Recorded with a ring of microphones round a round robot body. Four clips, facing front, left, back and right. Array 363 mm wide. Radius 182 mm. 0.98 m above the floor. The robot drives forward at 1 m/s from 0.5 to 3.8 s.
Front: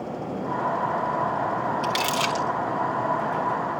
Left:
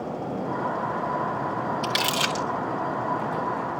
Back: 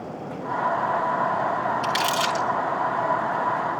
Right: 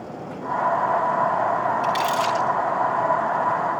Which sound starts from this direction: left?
Crumpling, at 1.8 s.